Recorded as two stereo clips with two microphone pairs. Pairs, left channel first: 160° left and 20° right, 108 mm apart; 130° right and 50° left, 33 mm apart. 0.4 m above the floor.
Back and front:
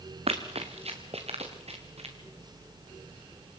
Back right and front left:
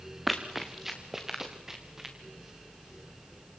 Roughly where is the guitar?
I don't hear a guitar.